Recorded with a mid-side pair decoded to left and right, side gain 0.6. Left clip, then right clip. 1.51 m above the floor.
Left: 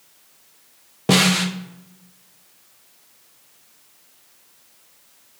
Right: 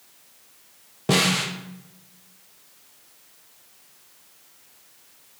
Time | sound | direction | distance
1.1 | a snare drum | 25° left | 0.6 m